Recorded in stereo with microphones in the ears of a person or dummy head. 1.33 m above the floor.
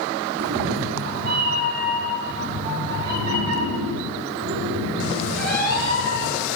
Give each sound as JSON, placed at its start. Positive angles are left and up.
{"t": 0.4, "sound": "a cat meowing", "side_deg": -50, "distance_m": 7.0}